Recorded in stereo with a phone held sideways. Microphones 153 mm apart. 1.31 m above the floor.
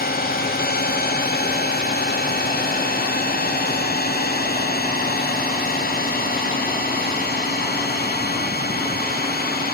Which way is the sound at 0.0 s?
80° left.